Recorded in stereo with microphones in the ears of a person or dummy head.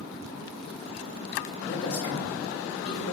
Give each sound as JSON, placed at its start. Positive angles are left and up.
{"t": 1.6, "sound": "a man speaking", "side_deg": 70, "distance_m": 1.1}